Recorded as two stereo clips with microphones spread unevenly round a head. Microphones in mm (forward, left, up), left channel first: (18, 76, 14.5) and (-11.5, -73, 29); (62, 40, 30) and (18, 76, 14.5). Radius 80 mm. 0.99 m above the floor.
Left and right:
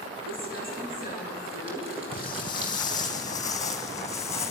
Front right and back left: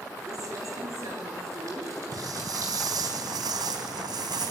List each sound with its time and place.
0.3 s crumpling: 160° right, 7 m
2.1 s footsteps: 140° left, 1.7 m; by 4.5 s 155° left, 3 m